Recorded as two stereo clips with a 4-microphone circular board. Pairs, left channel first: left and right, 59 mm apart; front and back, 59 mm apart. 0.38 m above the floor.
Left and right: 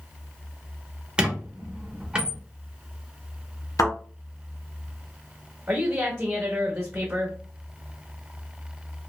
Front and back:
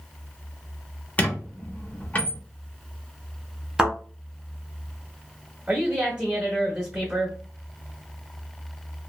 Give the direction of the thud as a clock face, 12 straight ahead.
9 o'clock.